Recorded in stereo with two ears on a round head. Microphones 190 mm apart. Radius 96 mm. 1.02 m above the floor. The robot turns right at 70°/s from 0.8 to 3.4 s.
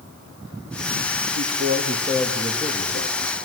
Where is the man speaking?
70° right, 1.9 m; by 3.4 s 70° left, 1.9 m.